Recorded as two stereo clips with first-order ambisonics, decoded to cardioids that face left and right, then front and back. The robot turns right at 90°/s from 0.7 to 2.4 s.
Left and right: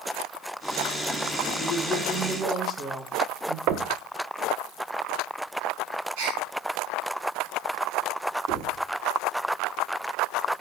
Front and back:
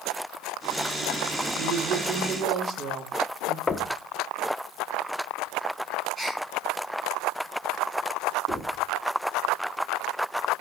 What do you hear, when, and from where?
1.6 s a woman speaking: 130° left, 1.1 m; by 3.6 s 160° right, 1.1 m
3.7 s knocking: 70° right, 0.5 m
6.2 s a gasp: 100° right, 4 m
8.5 s knocking: 130° right, 6 m